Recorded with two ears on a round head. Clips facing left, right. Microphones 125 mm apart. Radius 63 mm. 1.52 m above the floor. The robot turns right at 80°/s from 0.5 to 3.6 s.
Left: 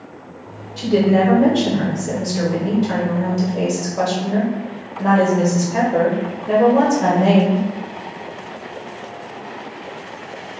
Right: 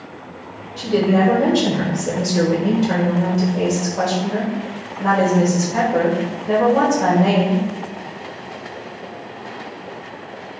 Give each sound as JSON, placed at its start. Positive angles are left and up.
{"t": 0.8, "sound": "a woman speaking", "azimuth_deg": 135, "distance_m": 1.0}